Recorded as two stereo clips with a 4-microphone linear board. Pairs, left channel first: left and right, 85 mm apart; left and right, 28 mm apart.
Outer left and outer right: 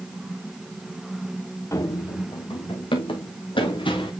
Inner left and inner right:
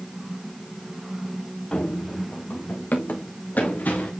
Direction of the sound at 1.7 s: 35° left (ahead or behind).